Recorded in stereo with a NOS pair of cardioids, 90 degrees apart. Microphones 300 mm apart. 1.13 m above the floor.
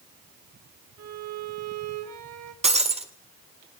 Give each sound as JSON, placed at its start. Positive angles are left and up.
{"t": 1.0, "sound": "a violin", "azimuth_deg": -55, "distance_m": 1.9}
{"t": 2.6, "sound": "breaking glass", "azimuth_deg": -20, "distance_m": 2.0}